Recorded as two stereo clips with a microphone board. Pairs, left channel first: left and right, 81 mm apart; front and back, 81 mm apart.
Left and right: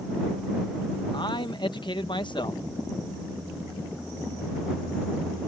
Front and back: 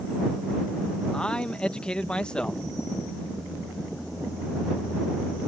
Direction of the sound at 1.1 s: 80° left.